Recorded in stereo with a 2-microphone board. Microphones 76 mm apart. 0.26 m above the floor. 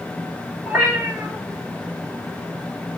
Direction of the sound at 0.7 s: 25° right (ahead or behind).